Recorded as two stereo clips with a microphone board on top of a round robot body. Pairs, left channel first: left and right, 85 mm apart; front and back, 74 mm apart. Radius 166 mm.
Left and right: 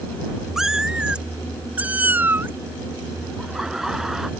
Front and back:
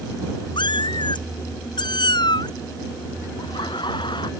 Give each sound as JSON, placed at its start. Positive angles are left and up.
{"t": 0.6, "sound": "a cat meowing", "azimuth_deg": -5}
{"t": 3.4, "sound": "laughter", "azimuth_deg": -5}